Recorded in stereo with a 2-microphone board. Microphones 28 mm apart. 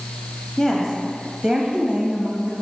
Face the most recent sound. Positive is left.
turn(degrees=-35)  # may be behind; listen again after turning